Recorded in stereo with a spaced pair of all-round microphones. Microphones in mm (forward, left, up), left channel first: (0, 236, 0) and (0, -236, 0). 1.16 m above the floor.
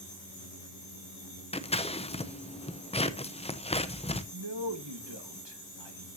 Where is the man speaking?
70° right (ahead or behind), 1.6 m.